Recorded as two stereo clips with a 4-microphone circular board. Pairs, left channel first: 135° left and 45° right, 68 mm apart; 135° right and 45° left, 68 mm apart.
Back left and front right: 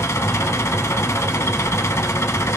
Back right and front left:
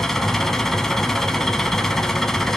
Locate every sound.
0.0 s an engine running: 145° left, 0.8 m